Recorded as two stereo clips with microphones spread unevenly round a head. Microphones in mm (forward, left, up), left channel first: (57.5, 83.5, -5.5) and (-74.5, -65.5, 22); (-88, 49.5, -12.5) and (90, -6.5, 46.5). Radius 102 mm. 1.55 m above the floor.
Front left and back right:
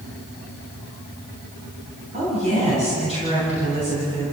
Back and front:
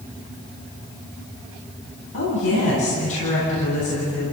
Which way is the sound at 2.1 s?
170° left.